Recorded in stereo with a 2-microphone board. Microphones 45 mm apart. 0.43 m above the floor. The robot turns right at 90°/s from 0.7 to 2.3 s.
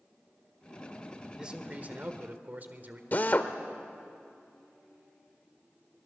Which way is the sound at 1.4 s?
155° right.